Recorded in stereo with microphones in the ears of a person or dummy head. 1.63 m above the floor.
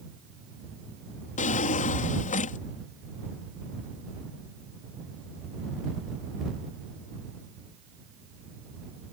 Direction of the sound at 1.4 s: 40° left (ahead or behind).